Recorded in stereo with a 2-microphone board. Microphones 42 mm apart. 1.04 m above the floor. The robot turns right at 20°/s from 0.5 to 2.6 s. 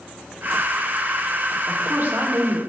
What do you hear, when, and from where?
1.7 s a woman speaking: 45° right (ahead or behind), 3 m; by 2.6 s 65° right (ahead or behind), 3 m